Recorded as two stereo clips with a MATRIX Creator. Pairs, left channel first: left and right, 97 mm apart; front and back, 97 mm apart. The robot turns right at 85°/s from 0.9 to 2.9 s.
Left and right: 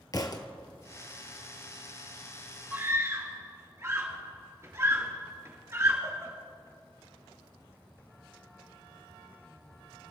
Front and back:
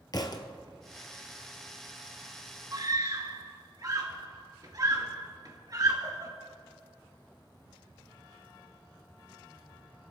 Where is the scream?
160° right, 2.5 m; by 6.3 s 145° right, 2.5 m.